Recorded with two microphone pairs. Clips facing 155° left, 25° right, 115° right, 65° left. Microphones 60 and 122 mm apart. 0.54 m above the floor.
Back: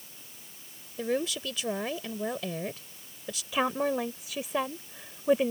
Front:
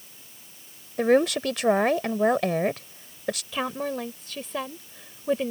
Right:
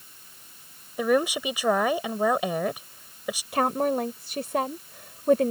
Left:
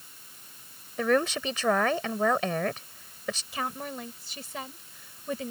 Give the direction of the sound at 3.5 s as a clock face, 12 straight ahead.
4 o'clock.